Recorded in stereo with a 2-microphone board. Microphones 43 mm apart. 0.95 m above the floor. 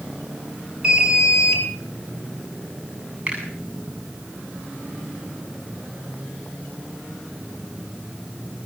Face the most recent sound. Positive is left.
turn(degrees=-30)  # may be behind; listen again after turning